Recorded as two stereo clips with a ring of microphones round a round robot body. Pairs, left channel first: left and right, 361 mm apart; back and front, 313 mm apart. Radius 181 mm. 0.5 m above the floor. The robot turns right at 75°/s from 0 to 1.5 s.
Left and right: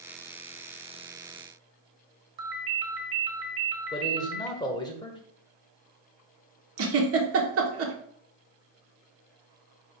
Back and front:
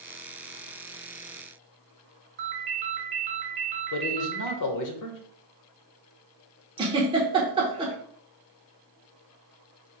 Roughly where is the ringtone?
Ahead right.